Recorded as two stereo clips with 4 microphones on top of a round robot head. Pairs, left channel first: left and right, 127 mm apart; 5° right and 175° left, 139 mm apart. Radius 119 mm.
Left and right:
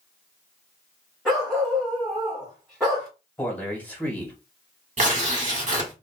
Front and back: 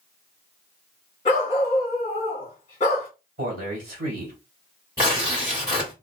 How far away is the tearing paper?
About 1.6 m.